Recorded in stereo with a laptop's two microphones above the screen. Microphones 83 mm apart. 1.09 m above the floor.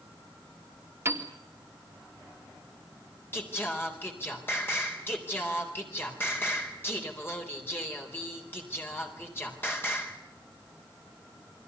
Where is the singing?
25° left (ahead or behind), 4 m.